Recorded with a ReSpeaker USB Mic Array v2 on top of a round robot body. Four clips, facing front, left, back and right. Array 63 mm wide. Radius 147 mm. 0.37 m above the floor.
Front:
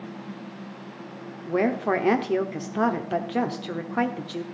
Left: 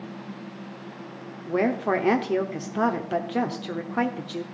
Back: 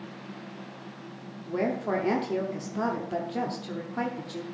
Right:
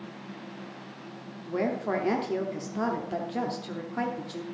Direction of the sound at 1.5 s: 35° left.